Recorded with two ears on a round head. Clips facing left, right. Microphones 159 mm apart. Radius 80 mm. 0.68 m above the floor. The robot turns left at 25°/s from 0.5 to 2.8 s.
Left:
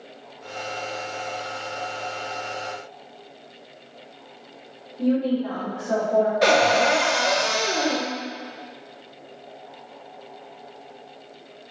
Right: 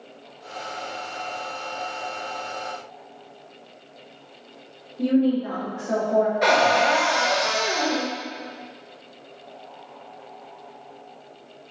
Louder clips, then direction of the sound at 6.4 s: Left 1 dB; 35° left (ahead or behind).